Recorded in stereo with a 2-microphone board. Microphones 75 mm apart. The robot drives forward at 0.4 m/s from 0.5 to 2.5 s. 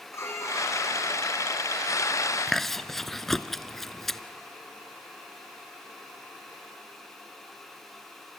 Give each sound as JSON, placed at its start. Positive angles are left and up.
{"t": 0.1, "sound": "a violin", "side_deg": 35, "distance_m": 3.0}
{"t": 2.5, "sound": "chewing", "side_deg": 5, "distance_m": 0.6}